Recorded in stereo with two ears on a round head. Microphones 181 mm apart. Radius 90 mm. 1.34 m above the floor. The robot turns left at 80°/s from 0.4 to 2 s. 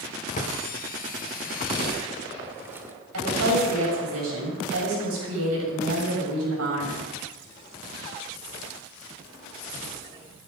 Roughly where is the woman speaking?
Right.